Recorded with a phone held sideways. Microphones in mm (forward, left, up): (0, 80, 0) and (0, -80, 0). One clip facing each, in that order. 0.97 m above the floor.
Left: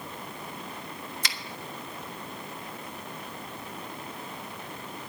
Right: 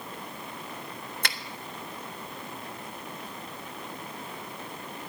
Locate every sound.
1.2 s a finger snap: 55° right (ahead or behind), 1.3 m